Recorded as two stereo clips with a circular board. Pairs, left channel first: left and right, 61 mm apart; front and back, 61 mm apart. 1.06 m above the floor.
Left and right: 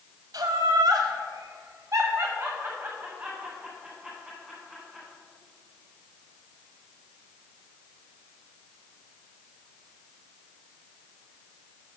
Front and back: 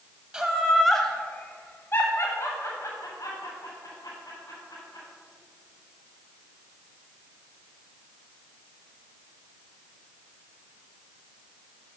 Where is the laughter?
110° right, 1.1 m; by 5.0 s 5° right, 3 m.